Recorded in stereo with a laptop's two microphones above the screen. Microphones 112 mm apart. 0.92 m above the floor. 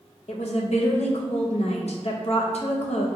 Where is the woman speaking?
70° left (ahead or behind), 0.5 m.